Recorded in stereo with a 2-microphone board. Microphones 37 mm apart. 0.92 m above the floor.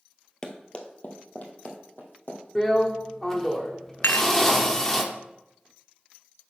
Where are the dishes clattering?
75° left (ahead or behind), 0.6 m.